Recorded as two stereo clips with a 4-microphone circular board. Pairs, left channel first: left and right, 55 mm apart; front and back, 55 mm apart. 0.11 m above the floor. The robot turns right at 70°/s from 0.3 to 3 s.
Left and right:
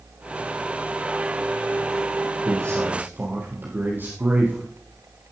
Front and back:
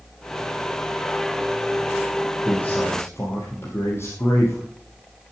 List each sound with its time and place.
2.5 s a man speaking: 80° right, 3.5 m; by 4.7 s 45° right, 3.5 m